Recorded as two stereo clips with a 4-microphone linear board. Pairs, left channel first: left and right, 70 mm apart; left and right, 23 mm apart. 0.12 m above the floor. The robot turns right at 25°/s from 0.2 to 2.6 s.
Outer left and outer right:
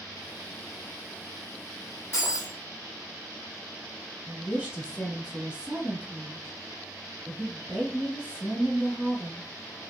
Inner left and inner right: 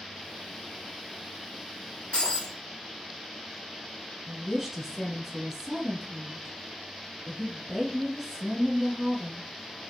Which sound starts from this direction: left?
Breaking glass, at 2.1 s.